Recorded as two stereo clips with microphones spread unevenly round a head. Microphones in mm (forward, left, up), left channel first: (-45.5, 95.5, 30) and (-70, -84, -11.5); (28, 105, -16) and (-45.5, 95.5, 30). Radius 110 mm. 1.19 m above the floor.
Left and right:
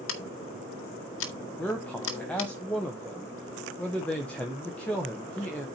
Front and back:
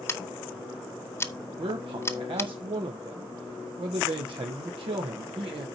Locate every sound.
0.1 s scissors: 70° left, 1.2 m
1.6 s a man speaking: 170° left, 1.1 m